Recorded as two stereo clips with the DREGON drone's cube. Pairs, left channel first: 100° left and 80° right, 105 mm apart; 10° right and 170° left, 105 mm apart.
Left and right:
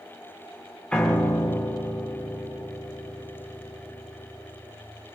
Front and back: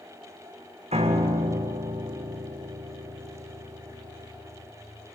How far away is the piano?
About 3.5 m.